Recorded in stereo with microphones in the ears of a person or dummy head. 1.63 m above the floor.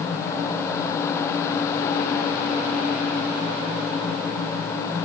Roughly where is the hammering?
I don't hear hammering.